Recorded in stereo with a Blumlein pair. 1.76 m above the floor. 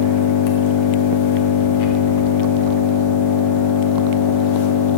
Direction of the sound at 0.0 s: 50° left.